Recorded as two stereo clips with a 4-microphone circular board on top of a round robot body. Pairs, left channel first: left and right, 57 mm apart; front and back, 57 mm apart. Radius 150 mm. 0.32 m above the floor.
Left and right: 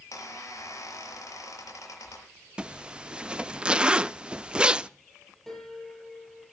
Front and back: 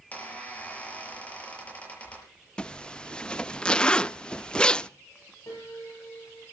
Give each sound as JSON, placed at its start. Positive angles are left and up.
{"t": 0.1, "sound": "a squeak", "azimuth_deg": 65, "distance_m": 7.0}
{"t": 2.6, "sound": "a zipper", "azimuth_deg": -45, "distance_m": 0.8}
{"t": 5.5, "sound": "a piano", "azimuth_deg": 5, "distance_m": 7.5}